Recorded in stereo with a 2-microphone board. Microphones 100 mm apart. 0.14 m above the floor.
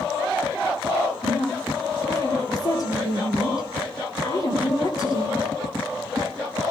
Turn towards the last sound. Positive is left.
turn(degrees=40)  # may be behind; listen again after turning